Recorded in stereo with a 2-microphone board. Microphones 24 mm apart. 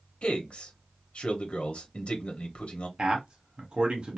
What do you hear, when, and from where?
0.2 s a man speaking: 55° left (ahead or behind), 1.1 m
3.0 s a man speaking: 45° right (ahead or behind), 1.2 m